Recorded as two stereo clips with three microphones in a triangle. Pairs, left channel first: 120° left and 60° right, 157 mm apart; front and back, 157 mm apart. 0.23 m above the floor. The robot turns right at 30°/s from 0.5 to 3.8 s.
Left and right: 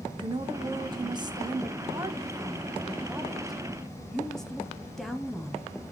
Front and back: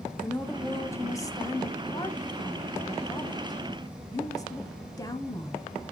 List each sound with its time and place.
0.2 s a woman speaking: 65° right, 1.1 m; by 5.7 s 35° left, 1.1 m